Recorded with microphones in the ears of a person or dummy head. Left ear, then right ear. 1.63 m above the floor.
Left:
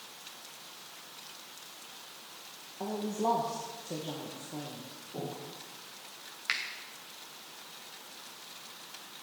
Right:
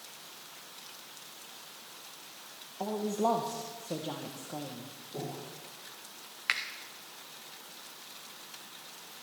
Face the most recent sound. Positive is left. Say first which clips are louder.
# right 2 dB
turn(degrees=-15)  # may be behind; listen again after turning